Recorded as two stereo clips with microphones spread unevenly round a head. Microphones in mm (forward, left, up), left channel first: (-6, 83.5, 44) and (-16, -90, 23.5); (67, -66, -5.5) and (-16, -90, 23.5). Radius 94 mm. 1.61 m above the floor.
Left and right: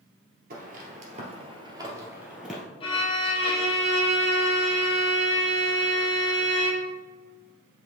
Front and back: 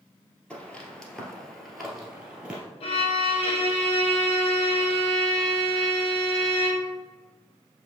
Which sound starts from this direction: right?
Footsteps, at 0.5 s.